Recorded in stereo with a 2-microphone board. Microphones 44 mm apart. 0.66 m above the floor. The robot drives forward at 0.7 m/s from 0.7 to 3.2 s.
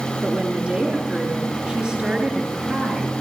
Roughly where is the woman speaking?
Right.